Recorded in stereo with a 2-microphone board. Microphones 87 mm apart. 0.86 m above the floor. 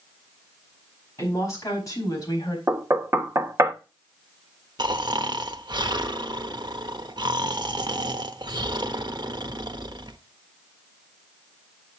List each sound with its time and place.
1.2 s a woman speaking: 35° left (ahead or behind), 5 m; by 2.6 s 50° left (ahead or behind), 4 m
2.7 s knocking: 35° right (ahead or behind), 0.9 m
4.8 s snoring: 55° right (ahead or behind), 0.7 m